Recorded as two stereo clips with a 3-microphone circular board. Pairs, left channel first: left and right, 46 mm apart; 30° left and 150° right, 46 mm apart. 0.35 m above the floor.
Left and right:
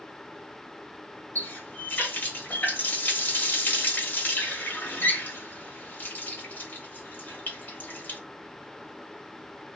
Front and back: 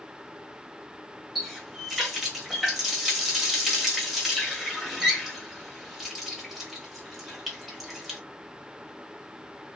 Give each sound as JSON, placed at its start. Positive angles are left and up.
{"t": 1.4, "sound": "a running tap", "azimuth_deg": 125, "distance_m": 1.0}